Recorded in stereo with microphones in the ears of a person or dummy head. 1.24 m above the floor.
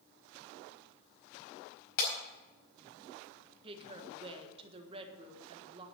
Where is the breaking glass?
70° left (ahead or behind), 4.5 m.